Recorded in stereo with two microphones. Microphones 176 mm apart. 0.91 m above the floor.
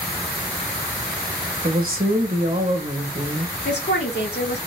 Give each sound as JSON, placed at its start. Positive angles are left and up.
{"t": 1.6, "sound": "a woman speaking", "side_deg": -60, "distance_m": 1.5}
{"t": 3.6, "sound": "a woman speaking", "side_deg": 75, "distance_m": 2.5}